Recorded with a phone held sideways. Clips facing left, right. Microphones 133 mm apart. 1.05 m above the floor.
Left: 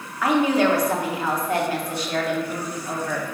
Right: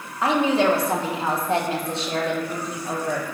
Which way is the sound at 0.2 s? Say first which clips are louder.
Even; 25° right (ahead or behind).